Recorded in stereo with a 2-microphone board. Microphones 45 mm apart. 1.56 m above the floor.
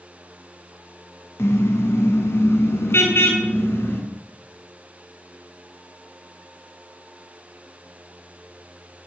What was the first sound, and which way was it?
A car horn, 80° left.